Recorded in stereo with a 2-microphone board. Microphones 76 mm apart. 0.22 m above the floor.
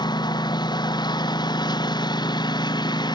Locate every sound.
0.0 s a lawn mower: 75° left (ahead or behind)